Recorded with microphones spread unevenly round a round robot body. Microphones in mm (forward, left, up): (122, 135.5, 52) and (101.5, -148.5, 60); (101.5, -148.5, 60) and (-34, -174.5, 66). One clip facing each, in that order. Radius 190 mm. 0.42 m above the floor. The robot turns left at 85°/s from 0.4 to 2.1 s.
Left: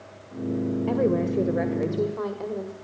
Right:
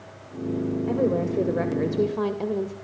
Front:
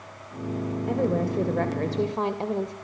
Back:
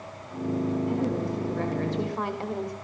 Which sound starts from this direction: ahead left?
A woman speaking, at 0.9 s.